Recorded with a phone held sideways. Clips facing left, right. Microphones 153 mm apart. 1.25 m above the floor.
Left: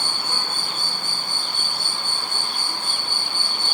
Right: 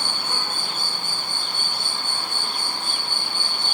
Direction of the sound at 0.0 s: 50° right (ahead or behind).